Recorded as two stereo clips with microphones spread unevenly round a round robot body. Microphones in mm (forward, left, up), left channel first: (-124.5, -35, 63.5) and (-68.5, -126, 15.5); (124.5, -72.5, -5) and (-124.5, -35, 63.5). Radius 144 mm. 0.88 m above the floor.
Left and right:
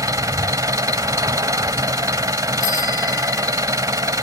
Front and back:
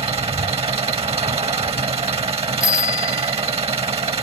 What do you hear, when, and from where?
0.0 s an engine running: 120° right
2.6 s a bicycle bell: 85° left